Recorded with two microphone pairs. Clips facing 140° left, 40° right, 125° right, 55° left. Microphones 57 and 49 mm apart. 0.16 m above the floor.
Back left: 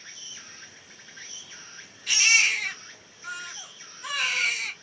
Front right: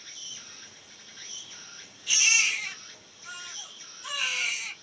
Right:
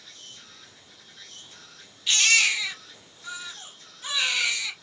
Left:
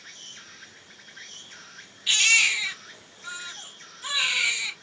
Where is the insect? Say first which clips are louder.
Back left 2 dB, left 3 dB; 85° left, 1.3 m.